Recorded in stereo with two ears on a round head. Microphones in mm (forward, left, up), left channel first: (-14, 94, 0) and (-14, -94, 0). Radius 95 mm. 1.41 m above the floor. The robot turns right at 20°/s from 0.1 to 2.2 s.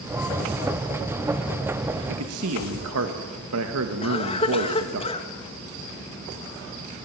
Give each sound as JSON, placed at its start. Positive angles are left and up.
{"t": 2.1, "sound": "a man speaking", "side_deg": -85, "distance_m": 1.8}
{"t": 4.0, "sound": "a cough", "side_deg": 25, "distance_m": 2.5}